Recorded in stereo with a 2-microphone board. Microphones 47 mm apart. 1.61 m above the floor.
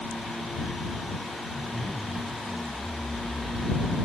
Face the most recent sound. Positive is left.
turn(degrees=30)  # may be behind; listen again after turning